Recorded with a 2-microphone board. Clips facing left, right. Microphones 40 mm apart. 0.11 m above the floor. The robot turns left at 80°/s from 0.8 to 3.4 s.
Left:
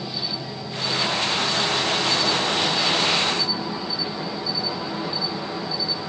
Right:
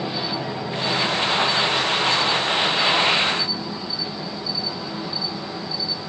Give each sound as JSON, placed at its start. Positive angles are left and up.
{"t": 0.0, "sound": "an insect", "azimuth_deg": -145, "distance_m": 1.4}